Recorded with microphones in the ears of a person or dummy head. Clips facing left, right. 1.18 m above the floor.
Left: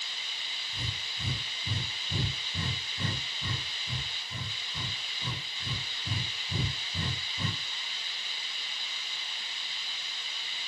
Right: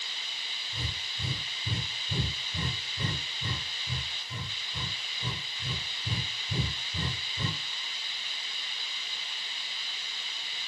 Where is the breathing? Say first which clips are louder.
Right 1 dB; 25° right (ahead or behind), 2.0 m.